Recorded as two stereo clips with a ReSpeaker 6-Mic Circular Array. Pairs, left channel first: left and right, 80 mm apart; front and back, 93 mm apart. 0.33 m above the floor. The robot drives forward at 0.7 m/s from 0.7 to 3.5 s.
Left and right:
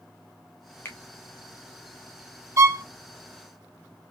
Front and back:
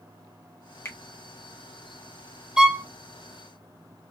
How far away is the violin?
About 0.7 m.